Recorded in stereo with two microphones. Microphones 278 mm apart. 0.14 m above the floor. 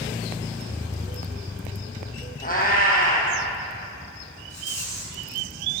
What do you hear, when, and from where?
2.4 s a cat meowing: 30° left (ahead or behind), 1.3 m
4.5 s a rattle: 65° left (ahead or behind), 2.0 m